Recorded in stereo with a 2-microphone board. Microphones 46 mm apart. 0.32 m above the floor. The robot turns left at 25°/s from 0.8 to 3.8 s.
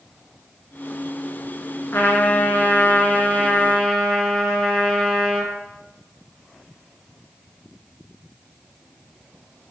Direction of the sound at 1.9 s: 60° left.